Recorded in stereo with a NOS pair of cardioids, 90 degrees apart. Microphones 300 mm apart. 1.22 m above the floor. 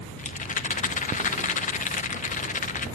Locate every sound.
0.2 s a rattle: 25° left, 0.9 m